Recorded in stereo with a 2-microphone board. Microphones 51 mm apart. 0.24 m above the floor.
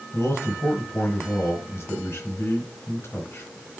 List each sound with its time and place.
0.1 s a man speaking: 60° left (ahead or behind), 3 m